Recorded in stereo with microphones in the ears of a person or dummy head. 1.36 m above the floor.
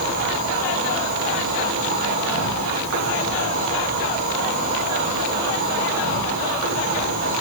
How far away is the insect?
About 5 m.